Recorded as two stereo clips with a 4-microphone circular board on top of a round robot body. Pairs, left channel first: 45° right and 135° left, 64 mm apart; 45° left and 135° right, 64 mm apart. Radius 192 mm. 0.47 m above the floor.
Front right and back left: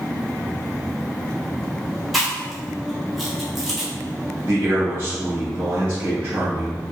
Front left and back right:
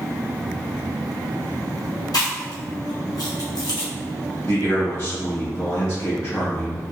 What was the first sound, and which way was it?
Chewing, 45° left.